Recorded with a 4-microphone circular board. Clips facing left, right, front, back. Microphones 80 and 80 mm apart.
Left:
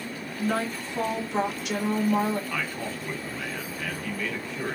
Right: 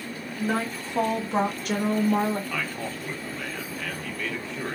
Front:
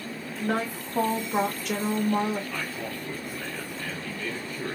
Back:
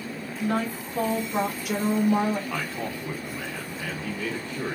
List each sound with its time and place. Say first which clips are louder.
0.4 s a woman speaking: even, back 1 dB; 35° right, 1.0 m; by 2.4 s 140° right, 0.8 m
2.5 s a man speaking: even, back 3 dB; straight behind, 1.0 m